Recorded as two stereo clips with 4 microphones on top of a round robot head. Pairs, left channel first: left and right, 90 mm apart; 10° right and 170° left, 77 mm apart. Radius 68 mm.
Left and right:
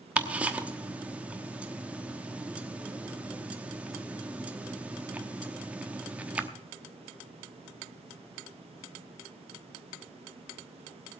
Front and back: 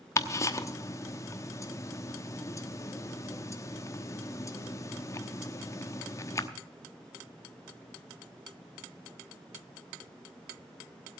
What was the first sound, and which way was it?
Ticking, 25° right.